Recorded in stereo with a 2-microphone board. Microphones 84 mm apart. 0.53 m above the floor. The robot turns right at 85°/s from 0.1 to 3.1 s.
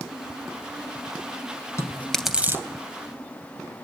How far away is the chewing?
About 2.5 m.